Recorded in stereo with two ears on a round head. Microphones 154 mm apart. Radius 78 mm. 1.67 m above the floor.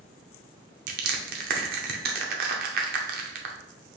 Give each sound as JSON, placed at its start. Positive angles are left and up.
{"t": 0.9, "sound": "crushing", "side_deg": -55, "distance_m": 0.6}